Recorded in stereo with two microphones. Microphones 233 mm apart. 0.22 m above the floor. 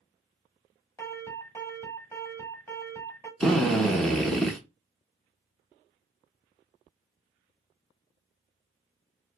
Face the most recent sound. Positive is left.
turn(degrees=0)  # may be behind; listen again after turning